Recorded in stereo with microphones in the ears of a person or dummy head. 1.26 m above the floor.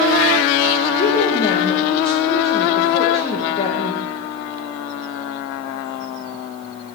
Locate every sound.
1.0 s a woman speaking: 25° left (ahead or behind), 1.3 m